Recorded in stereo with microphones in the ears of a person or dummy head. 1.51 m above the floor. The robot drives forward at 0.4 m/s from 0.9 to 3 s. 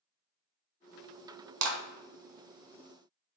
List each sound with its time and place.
1.6 s a clap: 75° right (ahead or behind), 0.6 m; by 1.8 s 85° right, 0.6 m